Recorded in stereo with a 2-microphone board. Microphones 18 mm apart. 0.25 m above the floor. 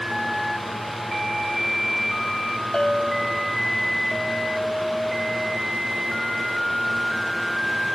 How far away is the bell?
About 0.7 m.